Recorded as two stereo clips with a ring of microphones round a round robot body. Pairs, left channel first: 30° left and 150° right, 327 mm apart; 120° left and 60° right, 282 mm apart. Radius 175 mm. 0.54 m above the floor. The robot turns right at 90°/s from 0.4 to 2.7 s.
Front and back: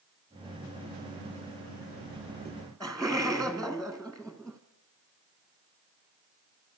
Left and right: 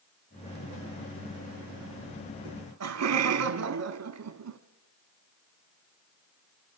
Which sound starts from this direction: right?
Laughter, at 2.5 s.